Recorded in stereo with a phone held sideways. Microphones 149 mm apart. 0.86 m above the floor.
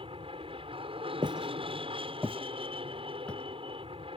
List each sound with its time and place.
0.0 s an aircraft: 40° right (ahead or behind)
1.2 s footsteps: 35° right (ahead or behind); by 4.2 s 10° left (ahead or behind)